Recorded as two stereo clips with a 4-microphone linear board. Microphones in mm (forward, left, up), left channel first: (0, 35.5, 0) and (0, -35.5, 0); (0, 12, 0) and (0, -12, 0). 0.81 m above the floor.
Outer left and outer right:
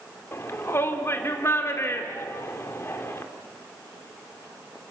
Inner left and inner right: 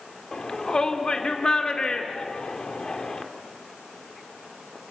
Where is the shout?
35° left (ahead or behind), 2.0 m.